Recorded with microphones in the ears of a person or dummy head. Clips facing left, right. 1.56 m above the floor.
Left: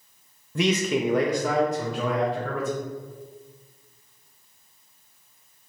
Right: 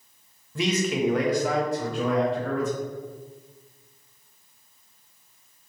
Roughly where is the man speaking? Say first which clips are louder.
Left 1 dB; left.